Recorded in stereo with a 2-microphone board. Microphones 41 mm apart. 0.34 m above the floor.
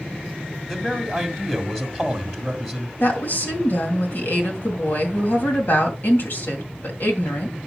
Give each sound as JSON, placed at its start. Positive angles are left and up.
{"t": 0.7, "sound": "a man speaking", "side_deg": 5, "distance_m": 1.8}
{"t": 3.0, "sound": "a woman speaking", "side_deg": 60, "distance_m": 2.5}